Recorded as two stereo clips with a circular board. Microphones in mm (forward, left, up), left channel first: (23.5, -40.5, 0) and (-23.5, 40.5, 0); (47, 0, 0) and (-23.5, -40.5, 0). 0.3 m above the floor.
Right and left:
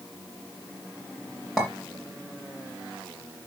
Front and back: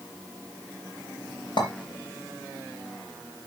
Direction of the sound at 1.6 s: 30° left.